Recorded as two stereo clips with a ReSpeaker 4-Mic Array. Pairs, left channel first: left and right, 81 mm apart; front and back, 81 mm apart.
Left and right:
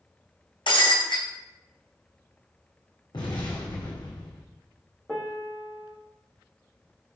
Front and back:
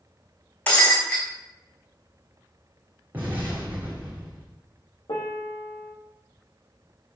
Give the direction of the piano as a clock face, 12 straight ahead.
12 o'clock.